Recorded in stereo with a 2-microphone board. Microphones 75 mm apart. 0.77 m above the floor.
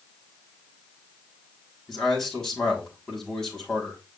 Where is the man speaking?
5° left (ahead or behind), 6.5 m.